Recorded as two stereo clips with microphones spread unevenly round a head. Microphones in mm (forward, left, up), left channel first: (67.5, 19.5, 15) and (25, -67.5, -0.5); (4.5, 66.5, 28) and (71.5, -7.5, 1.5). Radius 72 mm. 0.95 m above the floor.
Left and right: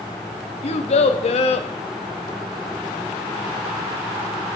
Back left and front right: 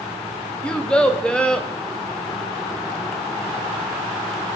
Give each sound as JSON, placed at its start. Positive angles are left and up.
{"t": 0.6, "sound": "a child speaking", "azimuth_deg": 50, "distance_m": 0.8}